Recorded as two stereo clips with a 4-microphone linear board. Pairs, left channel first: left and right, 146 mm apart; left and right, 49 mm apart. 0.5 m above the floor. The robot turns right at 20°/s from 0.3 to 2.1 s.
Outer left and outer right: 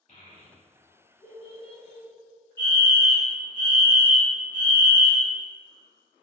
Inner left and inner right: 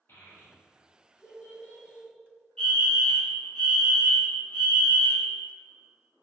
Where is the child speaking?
55° left (ahead or behind), 1.3 m; by 2.1 s 35° left (ahead or behind), 1.3 m.